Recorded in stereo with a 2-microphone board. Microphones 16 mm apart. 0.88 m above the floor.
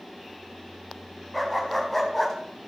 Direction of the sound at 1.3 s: Centre (ahead or behind).